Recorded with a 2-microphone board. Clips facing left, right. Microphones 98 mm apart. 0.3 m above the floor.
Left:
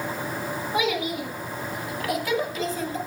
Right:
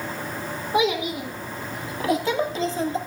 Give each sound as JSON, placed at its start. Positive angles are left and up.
{"t": 0.7, "sound": "a child speaking", "side_deg": -20, "distance_m": 2.5}